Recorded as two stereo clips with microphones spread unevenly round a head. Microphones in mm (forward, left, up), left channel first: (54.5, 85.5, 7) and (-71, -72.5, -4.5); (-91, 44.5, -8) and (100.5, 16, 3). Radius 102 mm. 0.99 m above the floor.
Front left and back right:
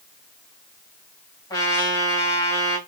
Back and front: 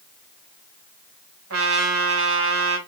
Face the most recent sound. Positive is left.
turn(degrees=-20)